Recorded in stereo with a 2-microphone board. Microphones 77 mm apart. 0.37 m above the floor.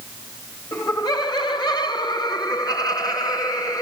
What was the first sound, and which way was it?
Laughter, 45° left (ahead or behind).